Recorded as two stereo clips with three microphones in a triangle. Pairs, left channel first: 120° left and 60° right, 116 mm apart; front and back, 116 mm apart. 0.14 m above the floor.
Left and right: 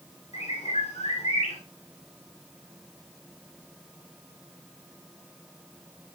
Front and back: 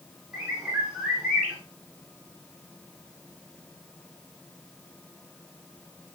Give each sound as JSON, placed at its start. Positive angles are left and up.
{"t": 0.3, "sound": "a bird", "azimuth_deg": 95, "distance_m": 9.0}